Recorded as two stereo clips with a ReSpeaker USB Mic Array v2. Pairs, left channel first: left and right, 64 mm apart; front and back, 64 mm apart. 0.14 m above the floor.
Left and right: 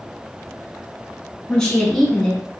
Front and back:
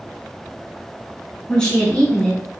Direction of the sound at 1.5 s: 45° left.